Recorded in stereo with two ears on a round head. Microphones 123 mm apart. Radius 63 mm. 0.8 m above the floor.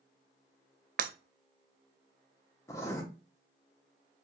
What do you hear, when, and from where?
1.0 s breaking glass: 70° right (ahead or behind), 0.5 m
2.7 s writing: 20° left (ahead or behind), 0.9 m